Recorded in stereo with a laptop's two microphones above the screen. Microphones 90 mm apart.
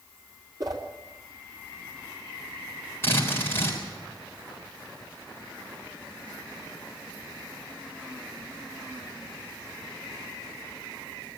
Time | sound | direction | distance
0.6 | a whoosh | 45° right (ahead or behind) | 3 m
3.0 | a drill | 30° left (ahead or behind) | 3.5 m